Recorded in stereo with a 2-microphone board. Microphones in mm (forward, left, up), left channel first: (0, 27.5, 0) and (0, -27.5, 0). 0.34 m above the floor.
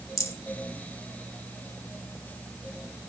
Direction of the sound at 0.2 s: 75° left (ahead or behind).